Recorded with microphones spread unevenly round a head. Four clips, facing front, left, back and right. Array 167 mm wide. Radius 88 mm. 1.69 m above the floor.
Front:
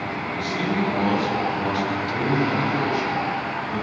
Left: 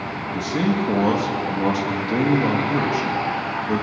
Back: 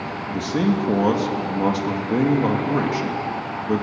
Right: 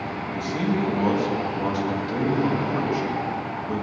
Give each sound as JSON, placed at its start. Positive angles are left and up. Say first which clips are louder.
{"t": 0.3, "sound": "a man speaking", "louder": "left 4 dB, back 5 dB", "azimuth_deg": 150, "distance_m": 3.0}